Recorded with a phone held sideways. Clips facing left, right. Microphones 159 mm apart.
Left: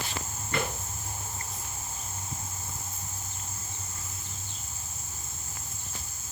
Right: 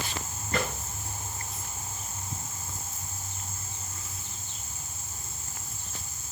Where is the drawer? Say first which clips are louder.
Right 1 dB; 40° right (ahead or behind), 9.5 m.